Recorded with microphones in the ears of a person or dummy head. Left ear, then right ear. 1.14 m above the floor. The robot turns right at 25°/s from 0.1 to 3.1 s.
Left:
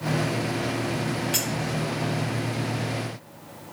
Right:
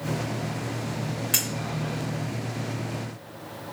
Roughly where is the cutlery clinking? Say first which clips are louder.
Right 2 dB; centre.